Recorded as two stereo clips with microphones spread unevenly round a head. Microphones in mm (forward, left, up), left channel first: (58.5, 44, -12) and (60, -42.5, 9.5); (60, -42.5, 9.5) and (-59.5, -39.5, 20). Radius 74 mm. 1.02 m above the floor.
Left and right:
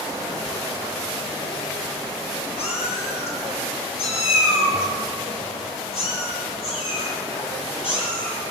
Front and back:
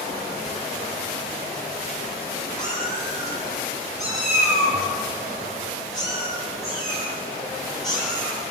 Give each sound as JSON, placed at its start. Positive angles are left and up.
{"t": 2.6, "sound": "a cat meowing", "azimuth_deg": 85, "distance_m": 6.5}